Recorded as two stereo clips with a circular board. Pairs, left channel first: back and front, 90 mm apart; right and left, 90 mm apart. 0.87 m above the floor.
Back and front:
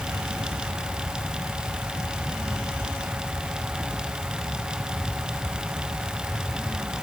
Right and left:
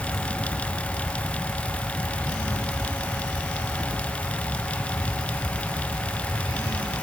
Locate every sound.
Only background noise.